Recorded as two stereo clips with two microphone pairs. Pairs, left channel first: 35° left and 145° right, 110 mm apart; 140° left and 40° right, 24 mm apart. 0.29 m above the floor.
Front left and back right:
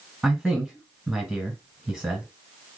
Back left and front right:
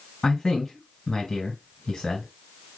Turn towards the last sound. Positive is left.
turn(degrees=140)